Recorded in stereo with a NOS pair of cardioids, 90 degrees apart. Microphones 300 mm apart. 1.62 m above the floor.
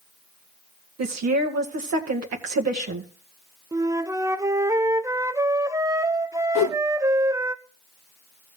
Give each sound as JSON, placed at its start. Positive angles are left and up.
{"t": 1.0, "sound": "a woman speaking", "azimuth_deg": -60, "distance_m": 2.0}
{"t": 3.7, "sound": "a flute", "azimuth_deg": -10, "distance_m": 0.8}
{"t": 6.5, "sound": "a whoosh", "azimuth_deg": 70, "distance_m": 1.0}